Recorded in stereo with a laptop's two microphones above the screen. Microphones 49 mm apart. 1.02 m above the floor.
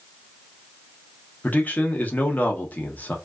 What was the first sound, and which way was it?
A man speaking, 35° left (ahead or behind).